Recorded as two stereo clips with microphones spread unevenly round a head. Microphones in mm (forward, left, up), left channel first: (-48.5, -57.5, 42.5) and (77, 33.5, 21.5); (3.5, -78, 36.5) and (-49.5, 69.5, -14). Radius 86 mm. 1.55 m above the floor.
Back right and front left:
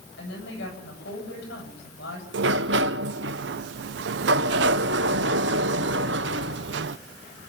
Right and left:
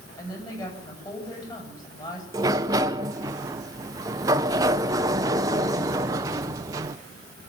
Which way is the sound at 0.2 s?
135° right.